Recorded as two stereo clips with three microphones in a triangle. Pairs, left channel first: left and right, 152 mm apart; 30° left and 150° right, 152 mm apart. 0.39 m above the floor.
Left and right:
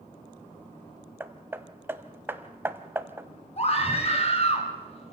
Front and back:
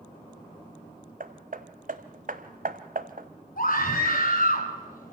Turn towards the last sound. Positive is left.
turn(degrees=45)